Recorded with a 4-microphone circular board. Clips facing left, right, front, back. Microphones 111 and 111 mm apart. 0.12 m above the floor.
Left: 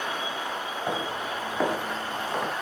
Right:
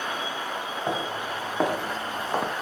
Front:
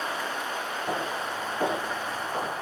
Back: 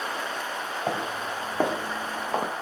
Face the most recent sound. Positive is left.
turn(degrees=-140)